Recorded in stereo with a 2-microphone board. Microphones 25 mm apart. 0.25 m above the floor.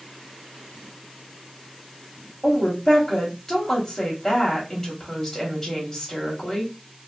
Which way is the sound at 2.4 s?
20° left (ahead or behind).